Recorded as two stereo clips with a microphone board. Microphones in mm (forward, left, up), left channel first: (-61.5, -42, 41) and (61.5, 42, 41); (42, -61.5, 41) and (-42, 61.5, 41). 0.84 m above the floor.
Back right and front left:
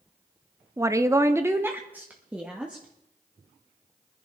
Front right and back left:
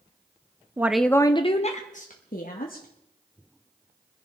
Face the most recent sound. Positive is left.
turn(degrees=-50)